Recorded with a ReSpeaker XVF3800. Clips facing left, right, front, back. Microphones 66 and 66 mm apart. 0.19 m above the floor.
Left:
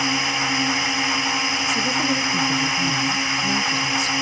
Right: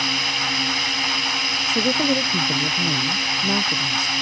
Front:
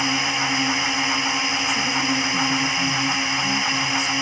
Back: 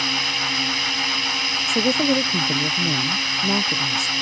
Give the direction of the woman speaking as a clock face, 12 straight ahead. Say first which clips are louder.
Right 4 dB, back 7 dB; 5 o'clock.